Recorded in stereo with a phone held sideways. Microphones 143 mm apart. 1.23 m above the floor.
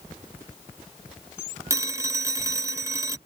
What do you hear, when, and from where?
1.7 s a phone ringing: 20° right (ahead or behind)